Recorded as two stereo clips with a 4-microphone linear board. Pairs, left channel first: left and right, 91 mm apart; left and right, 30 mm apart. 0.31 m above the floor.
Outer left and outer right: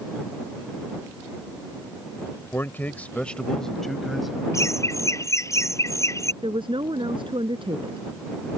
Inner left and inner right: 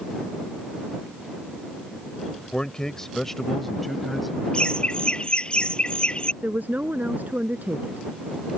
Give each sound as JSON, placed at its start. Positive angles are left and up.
{"t": 2.5, "sound": "a man speaking", "side_deg": 30}
{"t": 4.5, "sound": "laughter", "side_deg": 35}
{"t": 6.4, "sound": "a woman speaking", "side_deg": -70}